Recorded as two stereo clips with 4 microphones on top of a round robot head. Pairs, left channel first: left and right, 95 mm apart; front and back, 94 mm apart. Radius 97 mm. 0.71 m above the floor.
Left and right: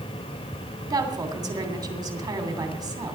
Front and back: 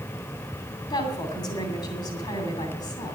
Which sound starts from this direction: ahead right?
A woman speaking, at 0.9 s.